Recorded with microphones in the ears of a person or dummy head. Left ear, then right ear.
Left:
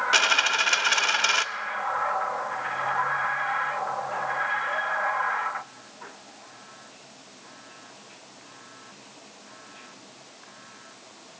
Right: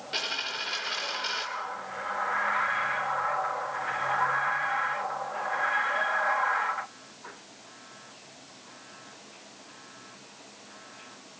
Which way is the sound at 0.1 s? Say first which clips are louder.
Left 9 dB; 40° left (ahead or behind).